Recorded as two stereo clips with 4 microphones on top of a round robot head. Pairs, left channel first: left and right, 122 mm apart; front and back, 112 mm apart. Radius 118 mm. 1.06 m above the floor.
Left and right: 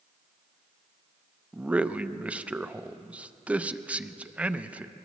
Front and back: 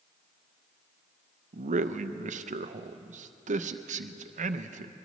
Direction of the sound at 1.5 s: 170° right.